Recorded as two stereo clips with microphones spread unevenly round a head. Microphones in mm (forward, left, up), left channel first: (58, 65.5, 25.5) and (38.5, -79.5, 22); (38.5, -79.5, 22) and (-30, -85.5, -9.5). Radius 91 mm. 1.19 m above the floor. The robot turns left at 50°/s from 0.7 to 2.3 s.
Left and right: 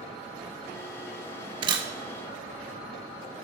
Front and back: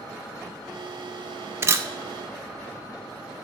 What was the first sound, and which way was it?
A camera shutter, 110° right.